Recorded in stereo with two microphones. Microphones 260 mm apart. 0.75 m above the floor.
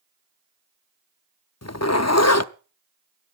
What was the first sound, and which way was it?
A zipper, 65° left (ahead or behind).